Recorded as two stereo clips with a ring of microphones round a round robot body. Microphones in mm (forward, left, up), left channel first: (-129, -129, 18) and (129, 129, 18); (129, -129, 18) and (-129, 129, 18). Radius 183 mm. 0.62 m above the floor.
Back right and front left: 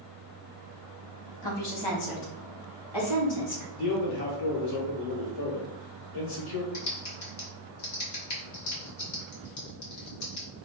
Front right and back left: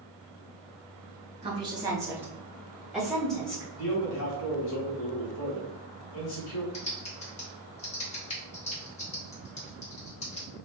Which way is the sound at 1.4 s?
150° right.